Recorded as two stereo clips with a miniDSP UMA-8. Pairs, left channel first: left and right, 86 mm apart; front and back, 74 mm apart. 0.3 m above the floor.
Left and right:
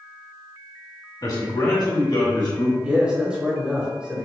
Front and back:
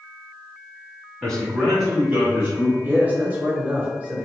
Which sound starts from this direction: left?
A man speaking, at 1.2 s.